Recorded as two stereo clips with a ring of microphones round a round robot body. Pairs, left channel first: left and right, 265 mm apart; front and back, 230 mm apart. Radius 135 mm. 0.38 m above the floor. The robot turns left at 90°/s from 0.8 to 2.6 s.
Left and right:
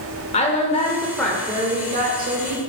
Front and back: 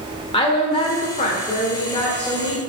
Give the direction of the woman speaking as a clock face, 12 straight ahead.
10 o'clock.